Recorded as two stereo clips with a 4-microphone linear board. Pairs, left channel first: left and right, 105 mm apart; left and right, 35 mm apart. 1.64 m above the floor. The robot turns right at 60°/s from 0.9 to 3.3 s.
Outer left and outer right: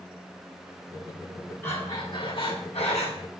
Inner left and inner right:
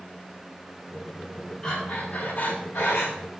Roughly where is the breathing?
Ahead.